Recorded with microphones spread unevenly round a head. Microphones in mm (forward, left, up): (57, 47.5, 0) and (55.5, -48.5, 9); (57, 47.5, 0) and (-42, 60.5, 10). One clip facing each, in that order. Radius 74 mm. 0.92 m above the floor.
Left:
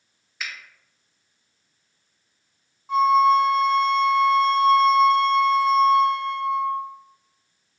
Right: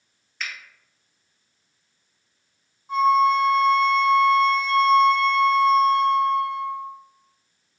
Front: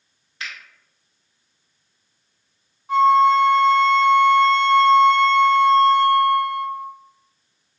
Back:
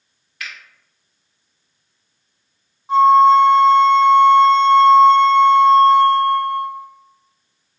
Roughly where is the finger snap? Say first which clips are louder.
Right 1 dB, even; ahead.